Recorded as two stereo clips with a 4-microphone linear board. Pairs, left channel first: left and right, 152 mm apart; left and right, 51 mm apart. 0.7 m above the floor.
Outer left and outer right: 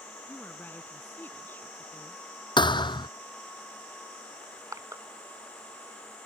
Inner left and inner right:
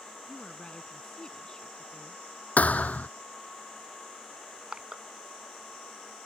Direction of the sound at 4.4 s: 20° right (ahead or behind).